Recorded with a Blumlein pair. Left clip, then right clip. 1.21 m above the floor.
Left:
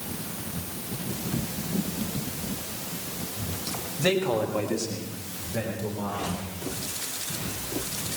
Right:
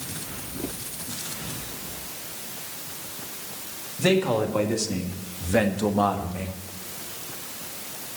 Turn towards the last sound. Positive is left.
turn(degrees=-60)